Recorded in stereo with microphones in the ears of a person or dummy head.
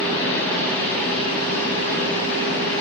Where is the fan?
10° left (ahead or behind), 3 m.